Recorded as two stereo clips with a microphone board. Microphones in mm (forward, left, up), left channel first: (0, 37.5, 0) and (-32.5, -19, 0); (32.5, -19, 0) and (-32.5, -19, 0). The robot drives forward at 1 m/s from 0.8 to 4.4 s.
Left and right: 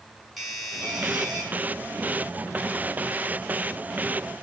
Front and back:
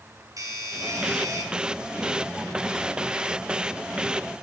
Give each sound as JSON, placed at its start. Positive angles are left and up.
{"t": 0.4, "sound": "a doorbell", "azimuth_deg": 150, "distance_m": 7.0}